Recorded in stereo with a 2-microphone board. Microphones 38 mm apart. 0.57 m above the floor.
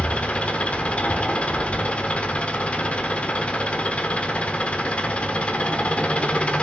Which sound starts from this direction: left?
An engine running, at 0.0 s.